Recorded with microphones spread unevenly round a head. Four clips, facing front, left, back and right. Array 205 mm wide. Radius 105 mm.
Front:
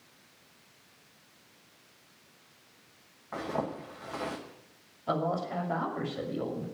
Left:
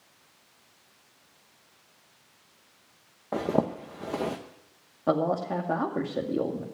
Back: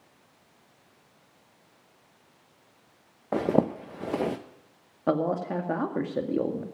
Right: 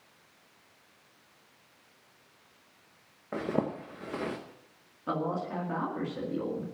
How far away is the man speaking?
About 2 m.